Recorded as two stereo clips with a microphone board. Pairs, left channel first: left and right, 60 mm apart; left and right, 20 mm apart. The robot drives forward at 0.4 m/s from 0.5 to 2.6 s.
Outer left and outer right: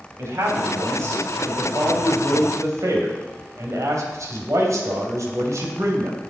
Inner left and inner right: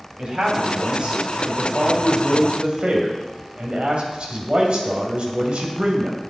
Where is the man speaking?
50° right (ahead or behind), 3.5 m; by 6.2 s 65° right (ahead or behind), 3 m.